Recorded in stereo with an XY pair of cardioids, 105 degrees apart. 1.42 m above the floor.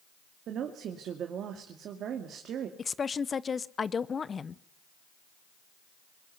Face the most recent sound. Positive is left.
turn(degrees=35)